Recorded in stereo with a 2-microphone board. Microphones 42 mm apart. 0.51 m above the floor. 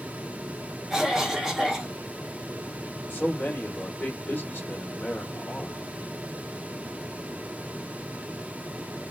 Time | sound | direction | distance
0.9 | a cough | 10° right (ahead or behind) | 1.2 m
3.1 | a man speaking | 45° left (ahead or behind) | 1.7 m